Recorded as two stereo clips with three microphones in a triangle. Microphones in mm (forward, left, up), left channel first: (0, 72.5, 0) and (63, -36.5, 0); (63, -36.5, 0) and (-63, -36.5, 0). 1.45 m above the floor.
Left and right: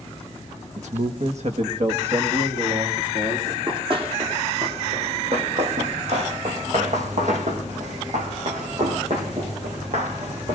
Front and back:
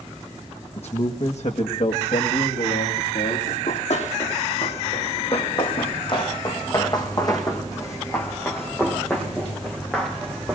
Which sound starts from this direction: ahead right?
A man speaking, at 0.8 s.